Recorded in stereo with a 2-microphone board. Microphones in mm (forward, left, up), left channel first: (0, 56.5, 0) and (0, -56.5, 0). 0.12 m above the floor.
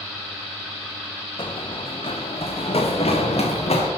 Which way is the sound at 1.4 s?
50° left (ahead or behind).